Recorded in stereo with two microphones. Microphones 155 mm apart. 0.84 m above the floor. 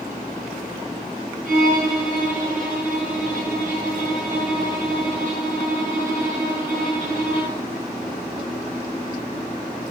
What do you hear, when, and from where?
1.4 s a violin: 60° right (ahead or behind), 4.5 m